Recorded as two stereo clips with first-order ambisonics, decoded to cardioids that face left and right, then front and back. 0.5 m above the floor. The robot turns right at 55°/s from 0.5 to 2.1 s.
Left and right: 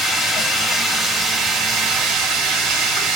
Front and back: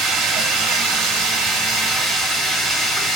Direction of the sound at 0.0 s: 160° left.